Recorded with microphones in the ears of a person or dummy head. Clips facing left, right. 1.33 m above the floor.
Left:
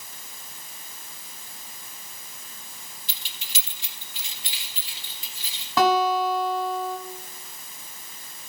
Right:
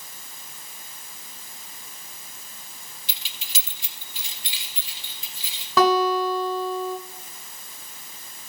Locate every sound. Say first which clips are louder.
3.1 s keys jangling: even; 55° right (ahead or behind), 0.9 m; by 5.7 s 65° right (ahead or behind), 3.5 m
5.8 s a guitar: right 1 dB; 65° right (ahead or behind), 3 m